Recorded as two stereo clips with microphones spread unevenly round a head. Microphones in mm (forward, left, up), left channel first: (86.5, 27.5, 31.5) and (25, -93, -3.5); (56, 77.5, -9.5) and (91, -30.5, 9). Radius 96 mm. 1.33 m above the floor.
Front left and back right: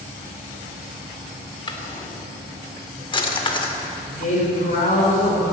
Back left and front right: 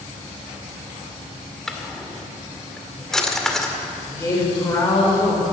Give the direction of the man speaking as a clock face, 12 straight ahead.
11 o'clock.